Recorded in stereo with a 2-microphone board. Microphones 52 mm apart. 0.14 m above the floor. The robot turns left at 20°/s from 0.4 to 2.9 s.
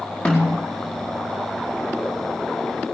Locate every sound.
0.2 s a snare drum: 25° left (ahead or behind), 4.5 m; by 0.6 s 30° left (ahead or behind), 4.5 m